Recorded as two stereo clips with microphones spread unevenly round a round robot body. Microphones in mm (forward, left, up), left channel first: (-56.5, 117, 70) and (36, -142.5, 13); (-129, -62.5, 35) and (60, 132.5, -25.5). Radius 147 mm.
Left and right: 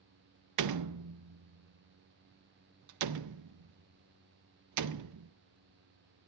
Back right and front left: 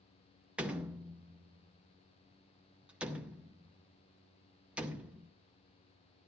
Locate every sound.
0.6 s a door slam: 40° right, 0.5 m